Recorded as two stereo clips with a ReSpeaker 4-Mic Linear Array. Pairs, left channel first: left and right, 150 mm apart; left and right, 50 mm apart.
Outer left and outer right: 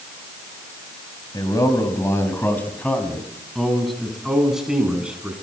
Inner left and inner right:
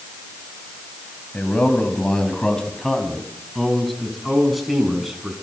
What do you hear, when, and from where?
1.3 s a man speaking: 25° left (ahead or behind), 3.5 m; by 5.3 s 5° right (ahead or behind), 6 m